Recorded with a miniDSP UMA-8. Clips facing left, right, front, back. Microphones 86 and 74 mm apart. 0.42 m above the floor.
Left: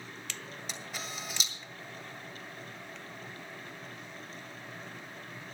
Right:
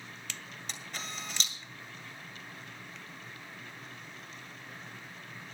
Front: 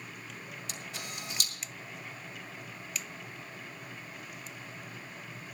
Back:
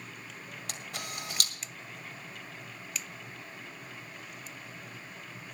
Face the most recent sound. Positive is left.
turn(degrees=175)